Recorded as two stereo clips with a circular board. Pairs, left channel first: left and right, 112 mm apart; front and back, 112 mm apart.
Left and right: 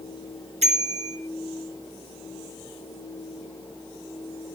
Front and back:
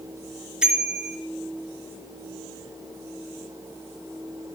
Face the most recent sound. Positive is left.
turn(degrees=-95)